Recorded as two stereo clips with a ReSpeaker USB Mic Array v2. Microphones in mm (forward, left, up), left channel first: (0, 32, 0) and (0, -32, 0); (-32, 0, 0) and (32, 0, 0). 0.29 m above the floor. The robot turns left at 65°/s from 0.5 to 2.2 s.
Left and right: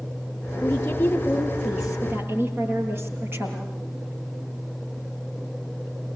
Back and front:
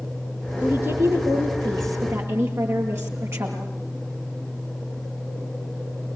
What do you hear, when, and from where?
0.6 s a woman speaking: 65° left, 7 m; by 3.7 s 40° right, 7 m